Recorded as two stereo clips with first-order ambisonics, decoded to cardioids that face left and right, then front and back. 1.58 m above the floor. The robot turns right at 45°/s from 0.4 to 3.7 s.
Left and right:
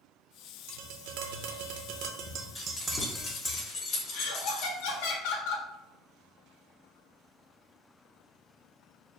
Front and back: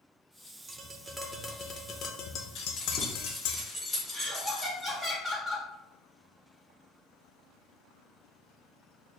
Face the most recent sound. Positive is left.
turn(degrees=100)